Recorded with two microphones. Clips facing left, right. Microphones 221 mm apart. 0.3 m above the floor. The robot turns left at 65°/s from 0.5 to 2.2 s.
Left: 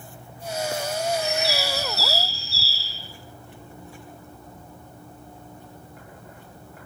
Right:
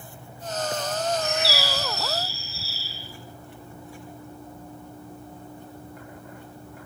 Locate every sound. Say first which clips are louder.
1.2 s a bird: left 1 dB; 150° left, 5 m; by 2.9 s 85° left, 5 m